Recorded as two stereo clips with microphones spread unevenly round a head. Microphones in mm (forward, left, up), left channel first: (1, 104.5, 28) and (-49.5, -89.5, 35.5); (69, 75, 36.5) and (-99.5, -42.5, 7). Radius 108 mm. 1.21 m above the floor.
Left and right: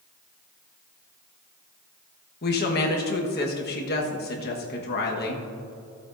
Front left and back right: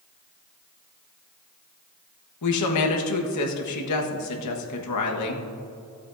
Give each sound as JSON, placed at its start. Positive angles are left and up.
{"t": 2.4, "sound": "a woman speaking", "azimuth_deg": 25, "distance_m": 1.3}